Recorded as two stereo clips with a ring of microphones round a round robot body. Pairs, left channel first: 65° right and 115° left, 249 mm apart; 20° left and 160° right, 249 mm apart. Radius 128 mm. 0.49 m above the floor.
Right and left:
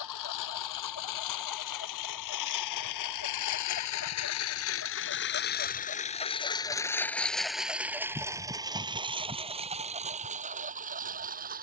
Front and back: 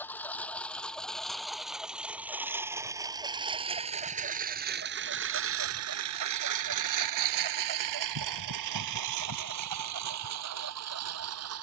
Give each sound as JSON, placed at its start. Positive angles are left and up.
{"t": 0.0, "sound": "a lawn mower", "azimuth_deg": -60}